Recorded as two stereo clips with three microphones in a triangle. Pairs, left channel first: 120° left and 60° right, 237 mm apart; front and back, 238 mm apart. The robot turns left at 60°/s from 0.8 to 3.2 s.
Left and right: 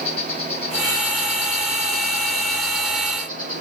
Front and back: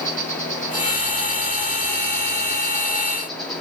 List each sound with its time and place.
0.0 s an insect: 55° left, 4.5 m; by 3.6 s 90° right, 4.5 m